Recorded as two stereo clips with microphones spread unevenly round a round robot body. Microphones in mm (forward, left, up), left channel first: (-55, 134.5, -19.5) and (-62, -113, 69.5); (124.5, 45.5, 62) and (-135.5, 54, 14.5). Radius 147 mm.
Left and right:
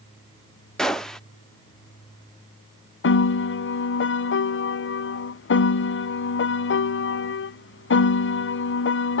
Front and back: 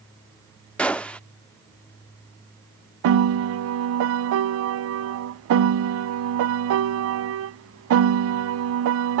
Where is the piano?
140° left.